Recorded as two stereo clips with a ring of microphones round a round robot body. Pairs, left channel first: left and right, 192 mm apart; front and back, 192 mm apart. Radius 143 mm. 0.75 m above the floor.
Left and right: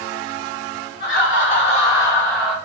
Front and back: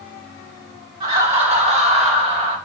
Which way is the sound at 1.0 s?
125° left.